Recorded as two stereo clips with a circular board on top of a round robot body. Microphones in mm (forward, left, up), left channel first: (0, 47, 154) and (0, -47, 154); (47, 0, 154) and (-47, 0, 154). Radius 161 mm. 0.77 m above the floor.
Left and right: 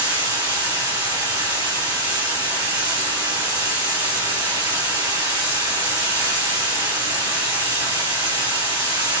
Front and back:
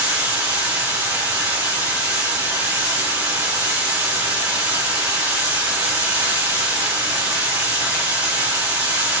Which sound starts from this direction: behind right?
Running water, at 0.0 s.